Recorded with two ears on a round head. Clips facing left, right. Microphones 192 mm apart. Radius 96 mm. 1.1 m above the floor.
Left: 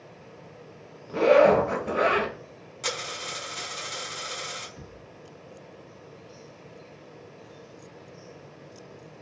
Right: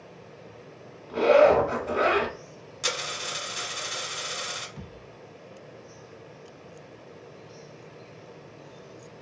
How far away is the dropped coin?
About 1.5 m.